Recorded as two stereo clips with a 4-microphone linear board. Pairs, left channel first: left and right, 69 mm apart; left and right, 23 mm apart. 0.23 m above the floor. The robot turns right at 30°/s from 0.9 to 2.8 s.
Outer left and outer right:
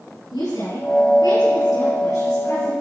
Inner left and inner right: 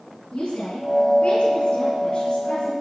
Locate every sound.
0.3 s a woman speaking: 80° left, 4 m; by 2.7 s 135° left, 4 m